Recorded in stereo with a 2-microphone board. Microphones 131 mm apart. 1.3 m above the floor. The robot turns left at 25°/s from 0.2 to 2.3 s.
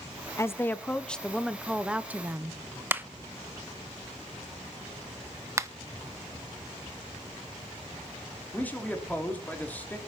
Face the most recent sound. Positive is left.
turn(degrees=10)  # may be behind; listen again after turning